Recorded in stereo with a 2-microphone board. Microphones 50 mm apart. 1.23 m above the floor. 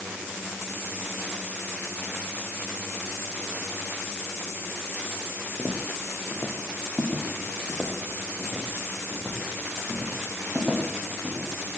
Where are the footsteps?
20° left (ahead or behind), 4 m; by 11.5 s 15° right (ahead or behind), 9 m.